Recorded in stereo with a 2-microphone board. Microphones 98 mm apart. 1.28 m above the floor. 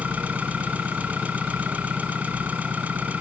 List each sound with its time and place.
0.0 s an engine running: 15° right (ahead or behind)